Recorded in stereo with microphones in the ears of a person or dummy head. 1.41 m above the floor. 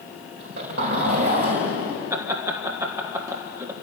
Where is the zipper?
60° right (ahead or behind), 5 m.